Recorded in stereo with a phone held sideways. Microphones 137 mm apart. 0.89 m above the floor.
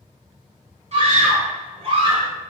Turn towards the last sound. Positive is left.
turn(degrees=-40)  # may be behind; listen again after turning